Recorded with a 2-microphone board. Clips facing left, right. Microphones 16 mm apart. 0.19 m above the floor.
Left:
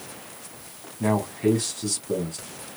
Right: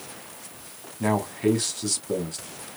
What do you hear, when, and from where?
1.0 s a man speaking: 25° right (ahead or behind), 1.0 m